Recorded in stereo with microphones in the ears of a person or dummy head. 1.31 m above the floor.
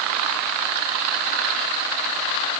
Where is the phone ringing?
I don't hear a phone ringing.